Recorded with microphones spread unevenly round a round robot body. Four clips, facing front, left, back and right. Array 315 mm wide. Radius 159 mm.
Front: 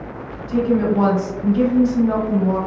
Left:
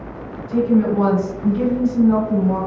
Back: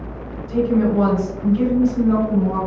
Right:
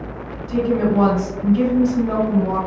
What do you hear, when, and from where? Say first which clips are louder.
0.5 s a woman speaking: left 2 dB, even; 75° right, 1.9 m